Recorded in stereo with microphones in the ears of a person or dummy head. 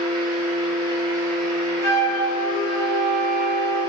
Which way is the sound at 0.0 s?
20° left (ahead or behind).